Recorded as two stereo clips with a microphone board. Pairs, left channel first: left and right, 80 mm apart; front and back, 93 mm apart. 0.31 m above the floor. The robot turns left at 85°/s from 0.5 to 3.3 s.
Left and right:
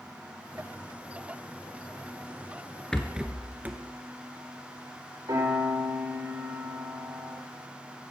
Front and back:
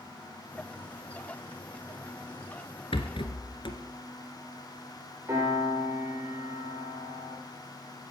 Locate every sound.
2.9 s a rattle: 10° left, 1.6 m; by 3.8 s 20° right, 1.6 m
5.3 s a piano: 120° right, 7 m